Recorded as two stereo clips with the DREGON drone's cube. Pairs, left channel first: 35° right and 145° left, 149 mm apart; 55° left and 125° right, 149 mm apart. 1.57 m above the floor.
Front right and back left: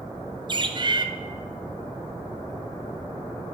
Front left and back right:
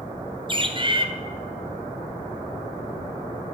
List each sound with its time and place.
0.5 s a bird: 165° right, 0.7 m